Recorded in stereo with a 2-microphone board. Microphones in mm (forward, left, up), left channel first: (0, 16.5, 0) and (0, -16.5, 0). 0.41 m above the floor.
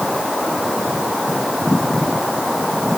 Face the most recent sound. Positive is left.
No sound to turn to.